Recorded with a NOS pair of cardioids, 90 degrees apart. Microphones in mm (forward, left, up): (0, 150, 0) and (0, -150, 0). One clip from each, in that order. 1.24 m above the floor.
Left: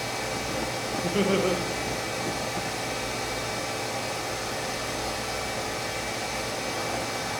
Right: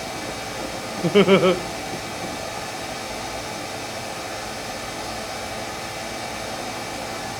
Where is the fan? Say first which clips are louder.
Even; 5° left, 1.8 m.